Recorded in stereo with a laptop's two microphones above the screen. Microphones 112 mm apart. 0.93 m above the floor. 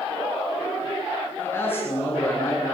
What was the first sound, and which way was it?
A man speaking, 20° left (ahead or behind).